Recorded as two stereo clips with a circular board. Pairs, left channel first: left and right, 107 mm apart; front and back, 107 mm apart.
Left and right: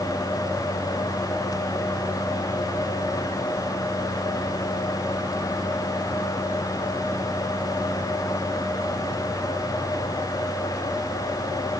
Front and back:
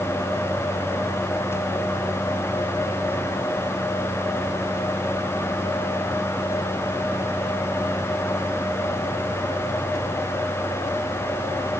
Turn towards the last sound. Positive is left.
No sound to turn to.